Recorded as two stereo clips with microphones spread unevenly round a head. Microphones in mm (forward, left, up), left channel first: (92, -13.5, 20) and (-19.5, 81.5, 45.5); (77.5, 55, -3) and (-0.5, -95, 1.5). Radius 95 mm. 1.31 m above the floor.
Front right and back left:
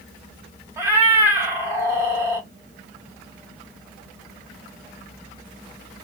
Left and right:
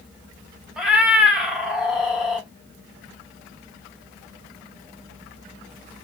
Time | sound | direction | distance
0.8 | a cat meowing | 160° left | 0.6 m